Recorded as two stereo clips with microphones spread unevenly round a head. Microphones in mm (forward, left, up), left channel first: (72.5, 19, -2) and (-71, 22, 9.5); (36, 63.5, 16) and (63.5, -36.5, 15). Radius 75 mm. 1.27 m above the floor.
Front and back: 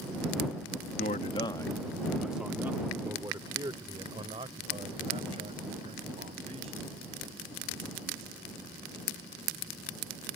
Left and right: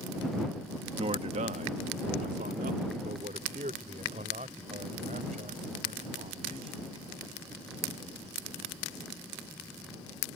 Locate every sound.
1.0 s a man speaking: 45° right; by 6.9 s 130° right